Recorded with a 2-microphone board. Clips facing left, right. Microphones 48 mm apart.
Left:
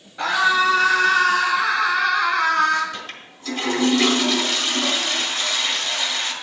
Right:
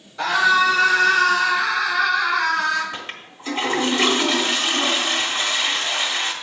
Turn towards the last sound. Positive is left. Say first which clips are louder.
# right 1 dB
turn(degrees=-25)  # may be behind; listen again after turning